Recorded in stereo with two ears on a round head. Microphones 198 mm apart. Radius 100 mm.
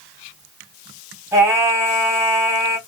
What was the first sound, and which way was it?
Singing, 10° right (ahead or behind).